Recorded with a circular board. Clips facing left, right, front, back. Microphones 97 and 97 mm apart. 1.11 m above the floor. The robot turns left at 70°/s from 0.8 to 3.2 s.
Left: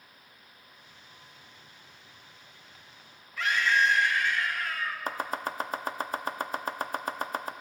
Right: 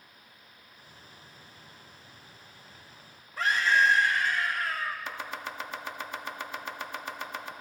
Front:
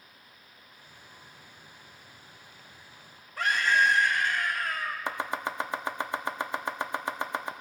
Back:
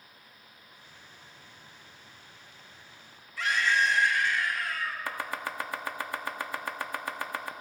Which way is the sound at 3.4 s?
40° right.